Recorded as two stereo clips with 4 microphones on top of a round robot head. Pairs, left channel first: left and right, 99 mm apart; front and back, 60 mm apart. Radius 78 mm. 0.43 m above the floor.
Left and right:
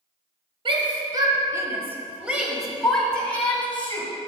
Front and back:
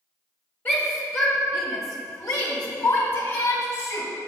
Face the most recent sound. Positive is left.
turn(degrees=20)